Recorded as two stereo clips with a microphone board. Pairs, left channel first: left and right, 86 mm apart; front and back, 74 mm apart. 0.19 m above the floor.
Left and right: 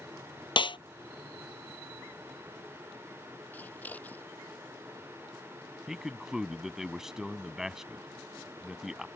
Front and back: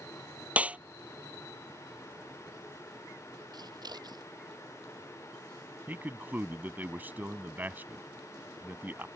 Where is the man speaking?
170° right.